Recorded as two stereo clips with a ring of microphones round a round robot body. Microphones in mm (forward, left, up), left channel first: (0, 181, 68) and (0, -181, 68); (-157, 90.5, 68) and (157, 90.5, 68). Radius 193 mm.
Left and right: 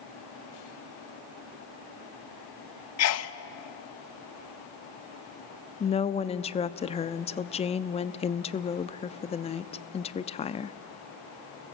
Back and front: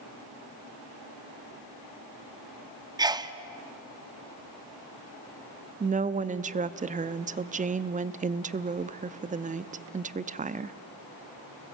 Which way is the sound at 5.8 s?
35° left.